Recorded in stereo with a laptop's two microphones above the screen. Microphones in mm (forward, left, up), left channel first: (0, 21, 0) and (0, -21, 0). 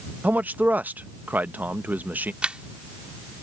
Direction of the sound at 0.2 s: 45° right (ahead or behind).